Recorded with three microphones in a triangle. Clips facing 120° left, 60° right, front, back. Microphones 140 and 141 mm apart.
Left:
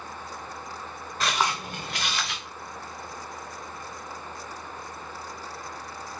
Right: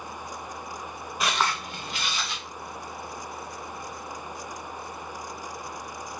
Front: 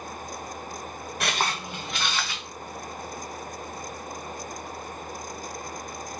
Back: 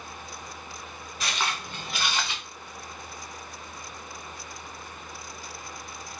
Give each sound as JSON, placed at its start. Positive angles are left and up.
{"t": 1.2, "sound": "footsteps", "azimuth_deg": 15, "distance_m": 0.7}